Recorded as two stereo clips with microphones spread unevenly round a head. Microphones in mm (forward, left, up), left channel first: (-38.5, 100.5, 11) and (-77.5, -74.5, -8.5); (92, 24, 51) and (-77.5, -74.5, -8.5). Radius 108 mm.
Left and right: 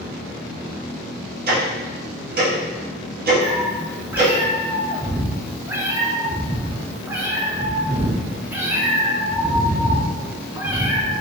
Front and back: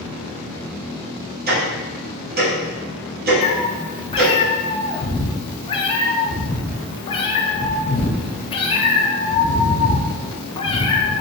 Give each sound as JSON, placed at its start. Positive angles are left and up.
{"t": 1.5, "sound": "ticking", "azimuth_deg": -130, "distance_m": 1.7}
{"t": 3.4, "sound": "a cat meowing", "azimuth_deg": -20, "distance_m": 0.5}